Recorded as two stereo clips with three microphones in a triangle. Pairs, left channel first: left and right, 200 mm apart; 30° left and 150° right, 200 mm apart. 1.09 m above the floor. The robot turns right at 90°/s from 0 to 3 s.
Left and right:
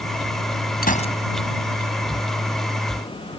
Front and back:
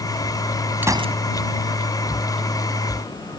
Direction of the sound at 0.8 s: 130° left.